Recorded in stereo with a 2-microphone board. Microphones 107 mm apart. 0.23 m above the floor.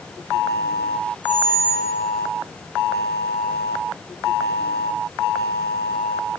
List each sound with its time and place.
1.2 s a squeak: 15° left (ahead or behind), 1.9 m